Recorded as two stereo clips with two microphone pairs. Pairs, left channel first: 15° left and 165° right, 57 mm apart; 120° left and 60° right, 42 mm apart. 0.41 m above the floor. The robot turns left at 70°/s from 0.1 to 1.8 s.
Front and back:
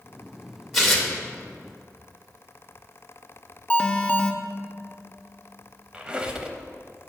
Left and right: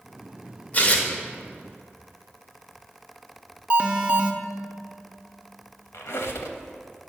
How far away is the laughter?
I don't hear laughter.